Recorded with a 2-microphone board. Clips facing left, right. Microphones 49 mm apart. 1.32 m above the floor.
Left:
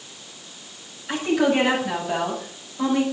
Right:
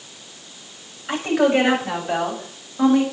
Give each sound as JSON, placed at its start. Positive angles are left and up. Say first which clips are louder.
{"t": 1.1, "sound": "a woman speaking", "louder": "right 2 dB", "side_deg": -45, "distance_m": 7.0}